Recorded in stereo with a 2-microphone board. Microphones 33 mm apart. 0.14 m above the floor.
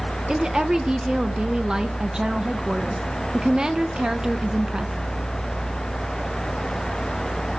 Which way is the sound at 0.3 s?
25° right (ahead or behind).